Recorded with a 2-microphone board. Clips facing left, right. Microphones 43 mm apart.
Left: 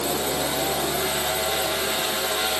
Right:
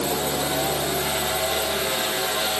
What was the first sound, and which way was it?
Only background noise.